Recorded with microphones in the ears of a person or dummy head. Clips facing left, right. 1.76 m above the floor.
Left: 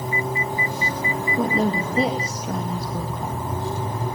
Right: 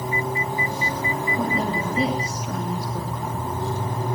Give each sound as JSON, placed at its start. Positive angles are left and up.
{"t": 1.4, "sound": "a woman speaking", "side_deg": 40, "distance_m": 2.5}